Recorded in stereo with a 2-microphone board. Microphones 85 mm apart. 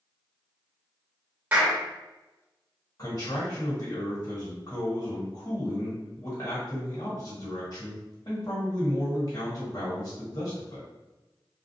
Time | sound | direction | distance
1.5 | a clap | 15° right (ahead or behind) | 1.0 m
3.0 | a man speaking | 55° left (ahead or behind) | 1.5 m